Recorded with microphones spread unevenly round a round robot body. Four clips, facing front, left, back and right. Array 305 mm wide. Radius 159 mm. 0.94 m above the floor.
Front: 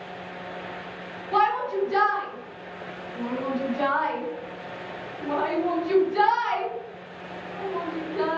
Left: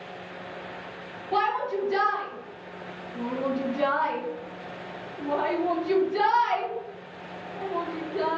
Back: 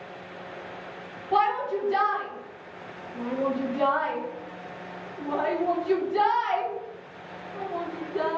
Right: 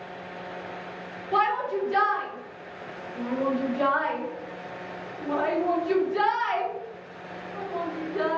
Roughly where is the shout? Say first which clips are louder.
Right 1 dB, front 1 dB; behind.